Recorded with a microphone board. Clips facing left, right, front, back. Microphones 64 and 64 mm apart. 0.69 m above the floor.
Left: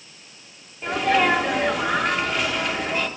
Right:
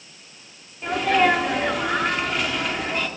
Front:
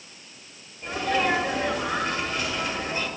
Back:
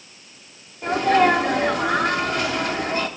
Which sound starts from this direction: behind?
A sneeze, at 0.8 s.